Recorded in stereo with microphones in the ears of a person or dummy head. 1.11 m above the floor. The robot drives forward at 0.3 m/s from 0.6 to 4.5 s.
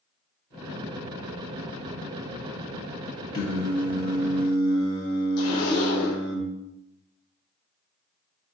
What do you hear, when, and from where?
3.3 s singing: 70° left (ahead or behind), 1.4 m; by 6.4 s 65° left (ahead or behind), 1.5 m
5.4 s a zipper: 75° left (ahead or behind), 1.7 m